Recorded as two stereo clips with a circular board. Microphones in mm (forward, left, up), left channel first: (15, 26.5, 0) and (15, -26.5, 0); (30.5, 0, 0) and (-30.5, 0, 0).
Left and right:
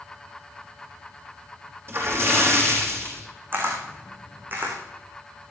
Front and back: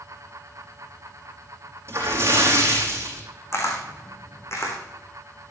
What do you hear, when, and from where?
1.9 s a splash: 130° right, 4 m
3.5 s a camera shutter: 45° right, 3.5 m